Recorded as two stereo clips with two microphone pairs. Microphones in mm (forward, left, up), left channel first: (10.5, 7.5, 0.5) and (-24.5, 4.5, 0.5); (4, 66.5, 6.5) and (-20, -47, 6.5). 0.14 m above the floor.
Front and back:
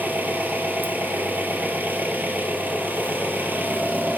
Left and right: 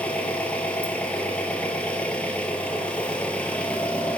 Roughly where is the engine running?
Behind left.